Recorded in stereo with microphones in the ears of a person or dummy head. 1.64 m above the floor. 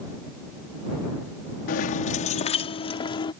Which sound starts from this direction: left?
Keys jangling, at 1.7 s.